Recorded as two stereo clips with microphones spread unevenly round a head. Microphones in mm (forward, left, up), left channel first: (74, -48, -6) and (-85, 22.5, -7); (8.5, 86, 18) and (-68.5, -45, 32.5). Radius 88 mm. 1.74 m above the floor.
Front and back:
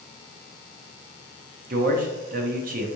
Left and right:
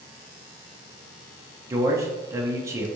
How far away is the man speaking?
About 0.9 m.